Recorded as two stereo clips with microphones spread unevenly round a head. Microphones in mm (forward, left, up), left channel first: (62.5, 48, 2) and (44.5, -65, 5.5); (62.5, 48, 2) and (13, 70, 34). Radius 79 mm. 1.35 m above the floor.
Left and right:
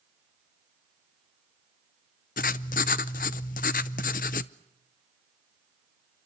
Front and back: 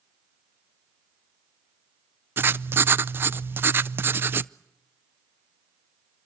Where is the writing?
110° left, 0.5 m.